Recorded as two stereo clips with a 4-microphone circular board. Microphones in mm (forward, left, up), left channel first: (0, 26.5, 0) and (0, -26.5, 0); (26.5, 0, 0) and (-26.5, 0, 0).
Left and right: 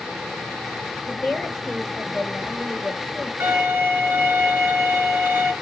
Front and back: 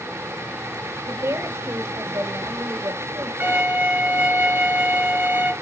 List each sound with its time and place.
1.1 s a woman speaking: 170° right, 4.5 m
3.4 s a violin: 140° right, 3.5 m